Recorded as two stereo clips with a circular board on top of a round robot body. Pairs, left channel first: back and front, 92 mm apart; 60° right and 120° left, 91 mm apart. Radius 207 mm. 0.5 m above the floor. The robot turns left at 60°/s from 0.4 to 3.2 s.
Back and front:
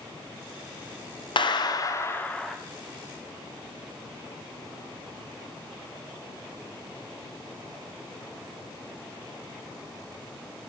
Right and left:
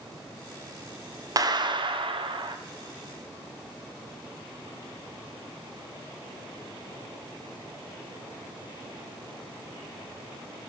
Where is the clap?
165° left, 1.1 m; by 2.6 s 90° left, 1.1 m.